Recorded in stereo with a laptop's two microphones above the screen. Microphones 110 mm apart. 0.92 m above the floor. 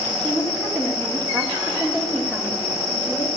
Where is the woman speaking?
10° left (ahead or behind), 2.0 m.